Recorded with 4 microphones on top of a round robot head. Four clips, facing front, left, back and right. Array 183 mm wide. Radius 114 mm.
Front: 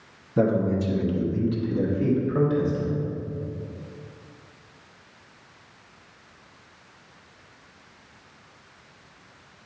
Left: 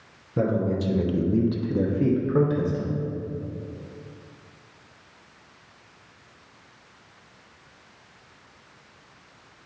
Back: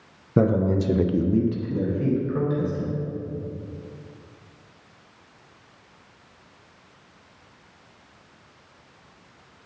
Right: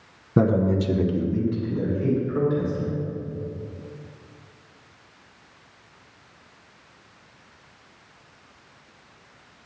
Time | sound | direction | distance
0.4 | a man speaking | 135° right | 1.1 m